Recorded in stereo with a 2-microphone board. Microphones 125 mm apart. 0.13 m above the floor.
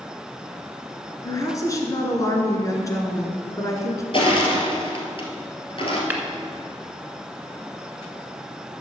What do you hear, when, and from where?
1.2 s a woman speaking: 25° left (ahead or behind), 1.8 m
4.1 s crushing: 45° left (ahead or behind), 2.0 m
6.1 s tapping: 15° right (ahead or behind), 1.4 m